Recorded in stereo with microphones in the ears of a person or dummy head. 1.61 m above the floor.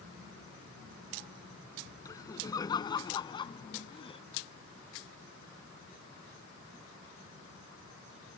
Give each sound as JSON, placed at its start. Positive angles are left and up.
{"t": 2.0, "sound": "laughter", "side_deg": 20}